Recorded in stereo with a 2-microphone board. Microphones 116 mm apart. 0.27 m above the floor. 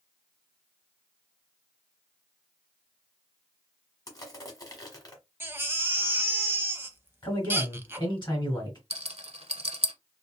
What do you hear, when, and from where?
4.1 s crushing: 30° left (ahead or behind), 1.2 m
5.4 s a baby crying: 20° right (ahead or behind), 0.5 m
7.2 s a man speaking: 40° left (ahead or behind), 2 m
8.9 s a rattle: 65° right (ahead or behind), 0.8 m